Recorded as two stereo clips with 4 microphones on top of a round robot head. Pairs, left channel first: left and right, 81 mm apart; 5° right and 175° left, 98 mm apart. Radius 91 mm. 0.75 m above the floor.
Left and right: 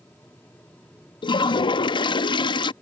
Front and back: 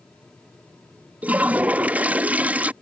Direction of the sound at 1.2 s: 100° left.